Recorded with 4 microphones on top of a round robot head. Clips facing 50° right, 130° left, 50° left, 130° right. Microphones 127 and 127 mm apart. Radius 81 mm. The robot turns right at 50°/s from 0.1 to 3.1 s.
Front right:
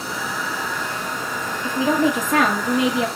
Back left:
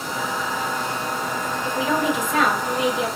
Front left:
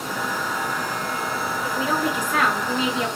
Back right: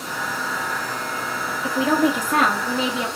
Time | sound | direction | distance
1.6 | a woman speaking | 120° right | 1.4 m